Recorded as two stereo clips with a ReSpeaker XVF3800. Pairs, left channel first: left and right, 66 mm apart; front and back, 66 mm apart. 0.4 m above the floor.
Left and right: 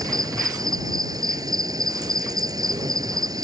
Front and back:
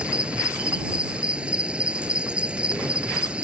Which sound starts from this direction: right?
An insect, at 0.0 s.